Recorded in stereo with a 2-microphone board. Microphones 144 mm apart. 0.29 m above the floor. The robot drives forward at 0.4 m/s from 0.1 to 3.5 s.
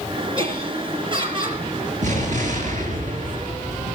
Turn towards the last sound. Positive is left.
turn(degrees=-65)  # may be behind; listen again after turning